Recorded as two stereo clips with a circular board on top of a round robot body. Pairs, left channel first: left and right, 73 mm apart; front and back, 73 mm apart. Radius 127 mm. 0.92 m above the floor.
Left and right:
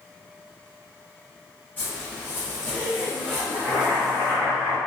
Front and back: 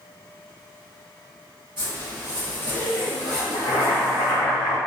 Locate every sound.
1.8 s a zipper: 155° left, 1.4 m
3.5 s boiling: 25° left, 0.9 m